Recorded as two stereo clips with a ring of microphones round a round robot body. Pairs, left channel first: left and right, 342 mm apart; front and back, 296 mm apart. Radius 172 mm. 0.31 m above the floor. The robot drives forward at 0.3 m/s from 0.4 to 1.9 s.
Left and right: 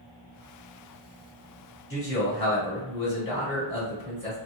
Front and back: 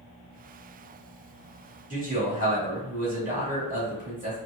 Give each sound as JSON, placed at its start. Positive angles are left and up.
{"t": 1.9, "sound": "a man speaking", "azimuth_deg": 130, "distance_m": 1.9}